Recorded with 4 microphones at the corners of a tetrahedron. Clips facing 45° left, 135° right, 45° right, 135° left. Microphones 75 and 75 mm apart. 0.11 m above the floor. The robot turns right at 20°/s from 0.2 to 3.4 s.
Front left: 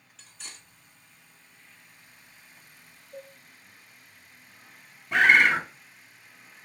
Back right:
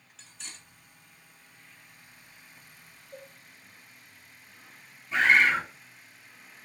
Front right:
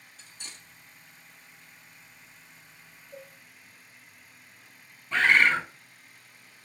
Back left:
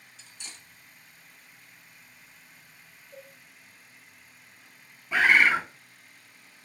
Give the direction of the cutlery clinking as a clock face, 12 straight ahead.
2 o'clock.